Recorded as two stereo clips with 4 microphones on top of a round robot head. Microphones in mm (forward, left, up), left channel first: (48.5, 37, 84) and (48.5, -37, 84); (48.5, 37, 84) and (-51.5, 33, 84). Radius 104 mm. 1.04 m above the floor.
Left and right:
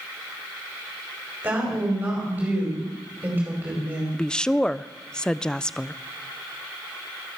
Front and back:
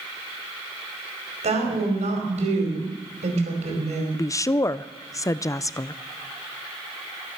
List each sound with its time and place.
1.4 s a woman speaking: 160° right, 5 m
4.1 s a woman speaking: 20° left, 0.5 m